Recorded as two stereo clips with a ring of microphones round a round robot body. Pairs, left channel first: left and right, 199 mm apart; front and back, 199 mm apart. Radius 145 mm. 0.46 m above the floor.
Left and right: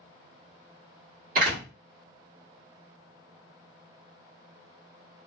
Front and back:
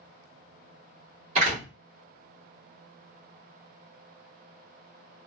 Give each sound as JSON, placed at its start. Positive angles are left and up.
{"t": 1.4, "sound": "a door slam", "azimuth_deg": -130, "distance_m": 1.3}